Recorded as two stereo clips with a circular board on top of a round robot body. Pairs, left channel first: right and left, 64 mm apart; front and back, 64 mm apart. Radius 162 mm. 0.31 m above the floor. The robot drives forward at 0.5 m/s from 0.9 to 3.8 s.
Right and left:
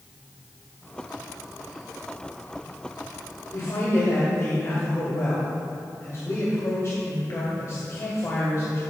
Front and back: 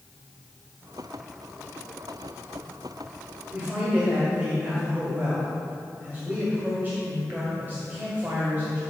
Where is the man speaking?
120° right, 1.9 m; by 8.8 s 125° right, 2.0 m.